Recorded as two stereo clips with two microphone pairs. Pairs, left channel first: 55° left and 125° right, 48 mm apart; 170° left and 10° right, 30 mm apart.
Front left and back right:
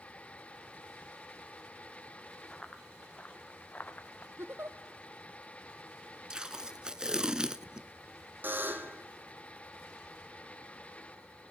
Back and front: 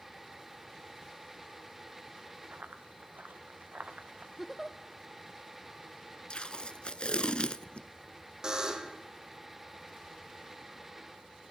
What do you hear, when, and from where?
2.5 s running footsteps: 20° right, 2 m; by 4.3 s 20° left, 1.4 m
4.4 s a giggle: 95° right, 0.9 m
6.3 s tape being pulled: 170° left, 0.6 m
8.4 s a buzzer: 80° right, 1.6 m